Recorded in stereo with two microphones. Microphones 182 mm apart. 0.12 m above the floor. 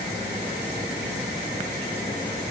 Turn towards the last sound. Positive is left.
No sound to turn to.